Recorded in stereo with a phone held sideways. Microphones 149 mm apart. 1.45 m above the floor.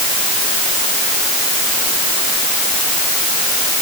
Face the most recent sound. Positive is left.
No sound to turn to.